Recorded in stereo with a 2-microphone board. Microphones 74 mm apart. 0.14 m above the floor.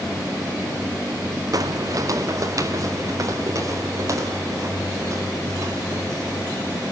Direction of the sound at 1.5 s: 50° right (ahead or behind).